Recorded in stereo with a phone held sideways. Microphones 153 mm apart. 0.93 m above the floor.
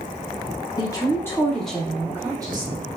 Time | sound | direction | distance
0.8 | a woman speaking | 25° left (ahead or behind) | 1.0 m